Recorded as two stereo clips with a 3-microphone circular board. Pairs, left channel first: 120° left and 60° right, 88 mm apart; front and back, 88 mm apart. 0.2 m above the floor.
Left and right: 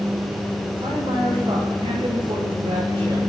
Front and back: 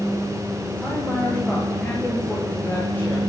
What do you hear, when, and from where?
0.8 s a man speaking: 80° right, 9.5 m; by 3.2 s 70° right, 10 m